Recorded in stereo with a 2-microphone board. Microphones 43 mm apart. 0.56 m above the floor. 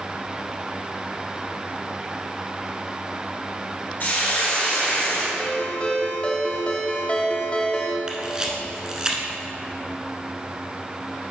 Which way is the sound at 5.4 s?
25° left (ahead or behind).